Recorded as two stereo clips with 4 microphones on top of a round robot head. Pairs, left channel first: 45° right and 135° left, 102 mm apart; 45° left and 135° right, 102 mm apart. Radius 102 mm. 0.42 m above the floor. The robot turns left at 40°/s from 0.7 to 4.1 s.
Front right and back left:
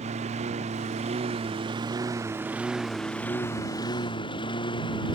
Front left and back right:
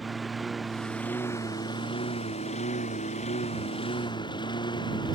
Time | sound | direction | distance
0.0 | a lawn mower | 135° left | ?